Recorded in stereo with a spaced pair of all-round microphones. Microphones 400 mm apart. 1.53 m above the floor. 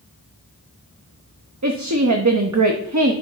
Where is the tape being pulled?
I don't hear tape being pulled.